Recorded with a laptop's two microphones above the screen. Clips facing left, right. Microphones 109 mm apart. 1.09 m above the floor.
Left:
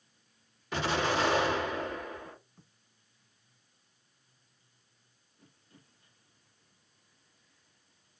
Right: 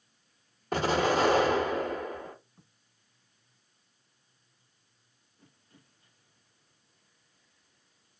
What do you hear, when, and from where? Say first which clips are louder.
0.7 s an explosion: right 4 dB; 45° right (ahead or behind), 1.0 m